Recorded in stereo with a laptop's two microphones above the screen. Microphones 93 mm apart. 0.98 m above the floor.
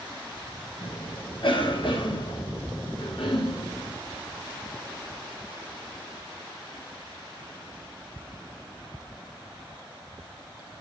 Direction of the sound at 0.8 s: 60° left (ahead or behind).